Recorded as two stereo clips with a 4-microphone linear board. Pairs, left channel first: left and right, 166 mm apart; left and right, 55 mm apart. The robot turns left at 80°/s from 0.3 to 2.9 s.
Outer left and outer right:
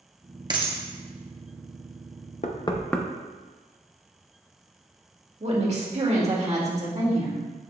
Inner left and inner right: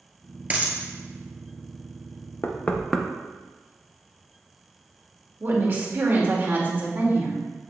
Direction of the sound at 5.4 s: 40° right (ahead or behind).